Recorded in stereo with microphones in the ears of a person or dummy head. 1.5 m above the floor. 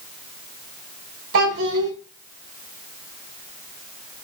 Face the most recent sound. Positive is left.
turn(degrees=-85)